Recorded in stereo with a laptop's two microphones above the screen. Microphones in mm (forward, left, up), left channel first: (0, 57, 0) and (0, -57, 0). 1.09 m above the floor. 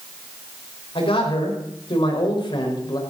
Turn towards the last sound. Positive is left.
turn(degrees=40)  # may be behind; listen again after turning